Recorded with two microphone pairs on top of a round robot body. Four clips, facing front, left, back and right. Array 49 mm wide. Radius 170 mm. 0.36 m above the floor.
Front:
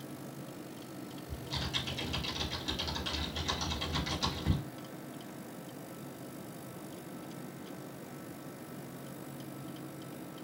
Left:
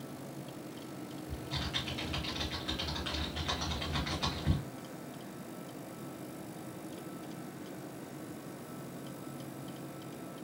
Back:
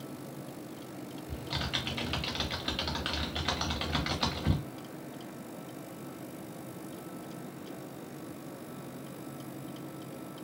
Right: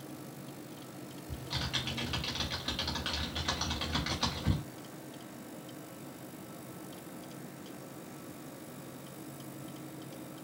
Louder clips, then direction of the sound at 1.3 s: Right 2 dB, back 3 dB; 165° right.